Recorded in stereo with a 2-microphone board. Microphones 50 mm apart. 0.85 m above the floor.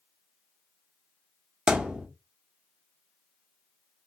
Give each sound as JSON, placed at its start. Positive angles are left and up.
{"t": 1.7, "sound": "a thud", "side_deg": -15, "distance_m": 1.1}